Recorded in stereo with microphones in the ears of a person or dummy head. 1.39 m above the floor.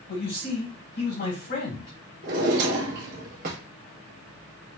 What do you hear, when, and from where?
0.1 s a man speaking: 55° left (ahead or behind), 1.6 m
2.2 s a drawer: 55° right (ahead or behind), 1.1 m